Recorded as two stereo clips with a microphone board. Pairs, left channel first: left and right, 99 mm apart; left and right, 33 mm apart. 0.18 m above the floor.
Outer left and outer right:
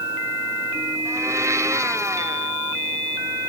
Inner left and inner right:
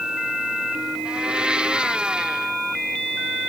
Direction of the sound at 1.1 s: 30° right (ahead or behind).